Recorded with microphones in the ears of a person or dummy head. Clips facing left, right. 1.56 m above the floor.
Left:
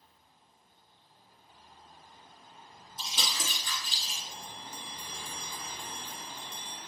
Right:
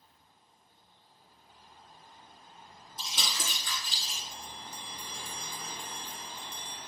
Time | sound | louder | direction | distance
3.0 | crumpling | left 1 dB | 45° right (ahead or behind) | 2.5 m
4.3 | a bell | even | 75° right (ahead or behind) | 1.6 m